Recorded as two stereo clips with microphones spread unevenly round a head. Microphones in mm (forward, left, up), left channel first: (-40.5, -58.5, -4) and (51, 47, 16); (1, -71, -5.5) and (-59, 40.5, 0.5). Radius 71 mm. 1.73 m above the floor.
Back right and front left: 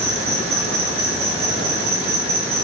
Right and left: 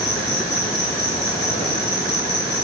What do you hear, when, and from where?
0.0 s an insect: straight ahead, 2.5 m